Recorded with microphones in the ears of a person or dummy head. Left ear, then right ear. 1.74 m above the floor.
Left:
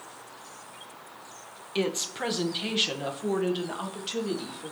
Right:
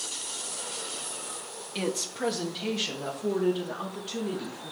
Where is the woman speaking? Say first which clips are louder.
Left 2 dB; 5° left (ahead or behind), 1.2 m; by 4.7 s 50° left (ahead or behind), 3.5 m.